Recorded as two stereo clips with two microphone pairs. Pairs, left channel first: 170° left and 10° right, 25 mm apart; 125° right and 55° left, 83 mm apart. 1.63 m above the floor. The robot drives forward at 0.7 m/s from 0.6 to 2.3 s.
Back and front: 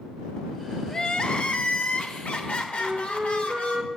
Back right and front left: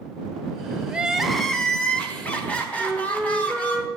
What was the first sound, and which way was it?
Crying, 125° left.